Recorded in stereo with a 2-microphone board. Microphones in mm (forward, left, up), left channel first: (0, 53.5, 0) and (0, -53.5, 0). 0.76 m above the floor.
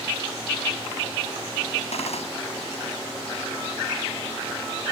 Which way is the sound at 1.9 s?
85° left.